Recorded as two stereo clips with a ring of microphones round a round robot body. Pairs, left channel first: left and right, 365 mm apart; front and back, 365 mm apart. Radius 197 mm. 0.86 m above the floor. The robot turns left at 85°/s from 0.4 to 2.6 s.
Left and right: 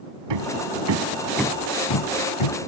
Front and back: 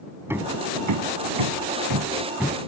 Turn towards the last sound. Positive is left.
turn(degrees=75)